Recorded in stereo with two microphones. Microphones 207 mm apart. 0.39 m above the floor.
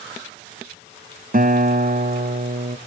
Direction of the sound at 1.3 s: 45° right (ahead or behind).